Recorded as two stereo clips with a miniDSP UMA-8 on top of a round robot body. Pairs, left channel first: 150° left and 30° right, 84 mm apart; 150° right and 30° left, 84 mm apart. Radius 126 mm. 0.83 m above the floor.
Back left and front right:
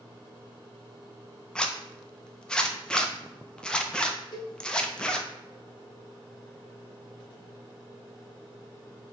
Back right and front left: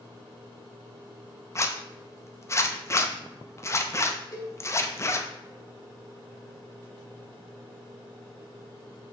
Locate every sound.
1.6 s a zipper: 140° right, 0.6 m
4.3 s a cowbell: 170° left, 0.9 m